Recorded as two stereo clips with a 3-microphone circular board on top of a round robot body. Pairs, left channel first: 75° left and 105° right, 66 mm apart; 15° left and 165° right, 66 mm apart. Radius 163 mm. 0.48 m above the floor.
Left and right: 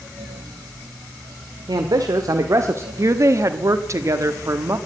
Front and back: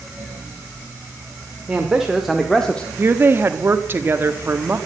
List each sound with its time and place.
1.7 s a man speaking: 90° right, 1.7 m; by 2.9 s 55° right, 1.3 m
3.0 s a woman speaking: 120° right, 1.6 m